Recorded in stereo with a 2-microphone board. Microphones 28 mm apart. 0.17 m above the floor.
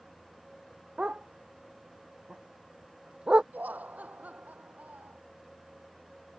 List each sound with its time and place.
1.0 s a dog barking: 40° right (ahead or behind)
3.5 s laughter: 75° right (ahead or behind)